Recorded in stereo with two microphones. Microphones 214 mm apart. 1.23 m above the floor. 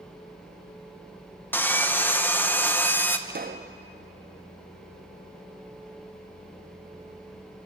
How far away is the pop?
About 0.6 m.